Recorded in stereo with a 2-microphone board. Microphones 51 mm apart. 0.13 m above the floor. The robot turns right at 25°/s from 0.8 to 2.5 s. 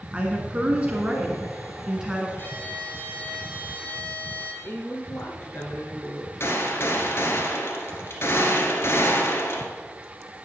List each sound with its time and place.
0.1 s a woman speaking: 20° right (ahead or behind), 1.3 m; by 2.3 s 5° right (ahead or behind), 1.3 m
2.4 s a violin: 45° left (ahead or behind), 1.7 m; by 4.5 s 40° left (ahead or behind), 1.7 m
4.6 s a woman speaking: 50° left (ahead or behind), 1.9 m
6.4 s a gunshot: 55° left (ahead or behind), 1.2 m